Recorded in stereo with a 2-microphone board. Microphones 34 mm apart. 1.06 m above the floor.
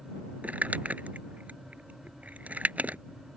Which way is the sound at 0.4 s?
50° right (ahead or behind).